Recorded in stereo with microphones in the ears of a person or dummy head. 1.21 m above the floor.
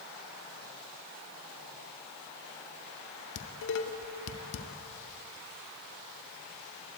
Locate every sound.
3.4 s dishes clattering: 75° left (ahead or behind), 1.9 m